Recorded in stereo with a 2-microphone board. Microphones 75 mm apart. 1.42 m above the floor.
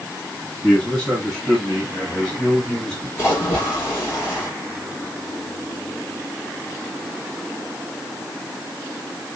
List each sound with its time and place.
0.6 s a man speaking: 20° left (ahead or behind), 6 m; by 3.1 s 30° left (ahead or behind), 5 m
3.2 s a splash: 35° left (ahead or behind), 5 m